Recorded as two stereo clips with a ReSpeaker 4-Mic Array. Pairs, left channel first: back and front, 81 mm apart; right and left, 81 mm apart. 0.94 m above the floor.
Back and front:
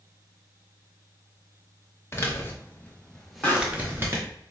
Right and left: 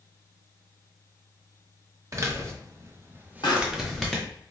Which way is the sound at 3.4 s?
105° right.